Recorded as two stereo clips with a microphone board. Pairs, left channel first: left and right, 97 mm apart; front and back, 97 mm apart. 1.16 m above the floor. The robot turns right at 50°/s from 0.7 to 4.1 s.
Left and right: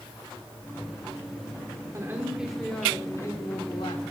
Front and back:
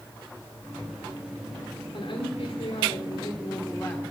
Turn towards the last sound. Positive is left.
turn(degrees=75)